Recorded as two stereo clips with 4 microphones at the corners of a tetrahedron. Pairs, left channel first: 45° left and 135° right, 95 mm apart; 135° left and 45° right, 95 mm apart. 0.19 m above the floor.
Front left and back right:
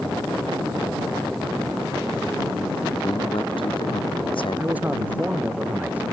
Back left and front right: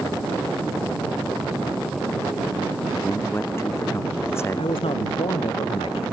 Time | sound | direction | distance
2.9 | a man speaking | 70° left | ?
4.6 | a man speaking | 150° left | ?